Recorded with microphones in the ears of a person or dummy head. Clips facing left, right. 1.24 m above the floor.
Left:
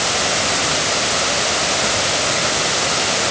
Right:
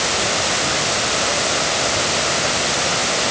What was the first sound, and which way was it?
Only background noise.